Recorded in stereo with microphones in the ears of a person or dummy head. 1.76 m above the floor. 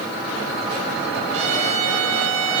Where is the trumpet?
45° right (ahead or behind), 2.5 m.